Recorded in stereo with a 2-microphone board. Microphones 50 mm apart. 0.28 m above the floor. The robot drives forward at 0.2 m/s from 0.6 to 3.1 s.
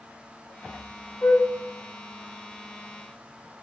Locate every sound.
1.2 s a flute: 70° left (ahead or behind), 1.7 m